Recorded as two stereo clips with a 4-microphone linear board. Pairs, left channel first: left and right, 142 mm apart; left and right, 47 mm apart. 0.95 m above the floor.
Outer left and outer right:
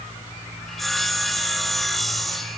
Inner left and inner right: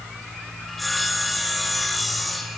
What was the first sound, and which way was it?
Sawing, centre (ahead or behind).